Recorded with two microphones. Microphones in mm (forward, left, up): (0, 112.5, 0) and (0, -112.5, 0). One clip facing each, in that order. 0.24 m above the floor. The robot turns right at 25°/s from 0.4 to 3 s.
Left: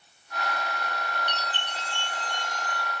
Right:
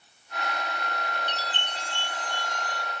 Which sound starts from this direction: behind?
A chime, at 1.3 s.